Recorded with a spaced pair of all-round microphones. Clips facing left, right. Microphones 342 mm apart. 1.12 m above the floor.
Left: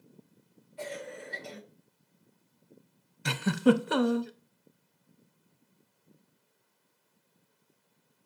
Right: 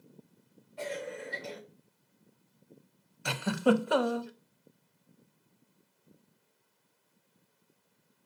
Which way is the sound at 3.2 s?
25° left (ahead or behind).